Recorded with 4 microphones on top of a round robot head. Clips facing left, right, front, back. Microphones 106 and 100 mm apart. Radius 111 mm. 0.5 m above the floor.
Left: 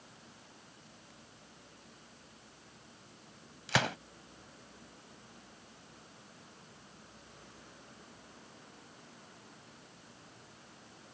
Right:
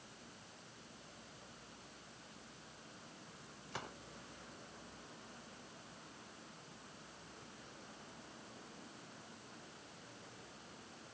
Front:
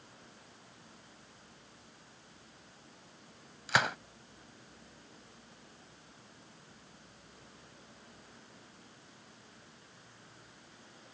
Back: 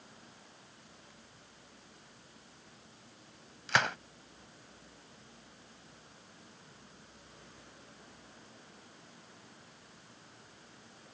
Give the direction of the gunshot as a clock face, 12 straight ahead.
9 o'clock.